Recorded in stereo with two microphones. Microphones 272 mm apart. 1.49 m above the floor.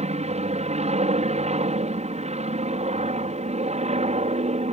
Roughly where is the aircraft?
Right.